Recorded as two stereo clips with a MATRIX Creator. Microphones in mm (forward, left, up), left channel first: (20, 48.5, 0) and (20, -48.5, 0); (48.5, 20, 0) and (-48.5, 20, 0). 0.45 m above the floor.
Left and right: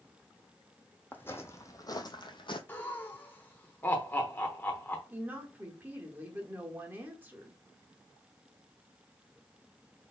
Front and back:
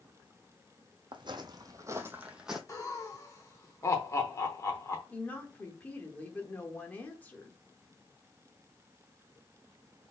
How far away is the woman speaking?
About 1.0 m.